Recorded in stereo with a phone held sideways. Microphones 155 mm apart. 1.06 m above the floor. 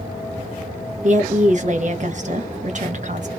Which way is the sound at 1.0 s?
50° right (ahead or behind).